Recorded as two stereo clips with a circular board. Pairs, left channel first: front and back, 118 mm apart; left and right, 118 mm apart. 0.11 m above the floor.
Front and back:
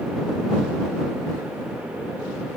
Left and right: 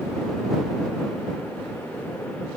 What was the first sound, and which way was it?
Only background noise.